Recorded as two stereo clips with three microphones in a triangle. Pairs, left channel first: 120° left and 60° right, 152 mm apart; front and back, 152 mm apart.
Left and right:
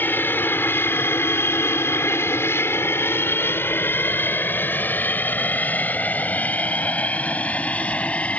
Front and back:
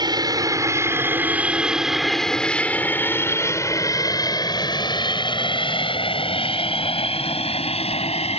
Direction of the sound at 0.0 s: Straight behind.